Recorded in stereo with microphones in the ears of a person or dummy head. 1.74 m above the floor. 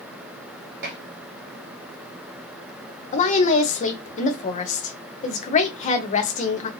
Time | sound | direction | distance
0.8 | dishes clattering | 60° right (ahead or behind) | 1.6 m
3.1 | a woman speaking | 35° left (ahead or behind) | 0.9 m